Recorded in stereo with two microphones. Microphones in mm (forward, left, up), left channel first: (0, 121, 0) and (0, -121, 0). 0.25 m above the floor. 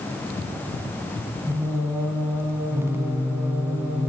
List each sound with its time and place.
1.5 s singing: 10° right (ahead or behind), 1.3 m